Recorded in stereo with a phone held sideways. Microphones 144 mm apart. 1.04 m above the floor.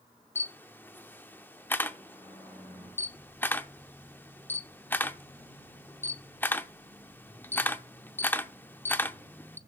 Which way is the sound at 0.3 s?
15° left (ahead or behind).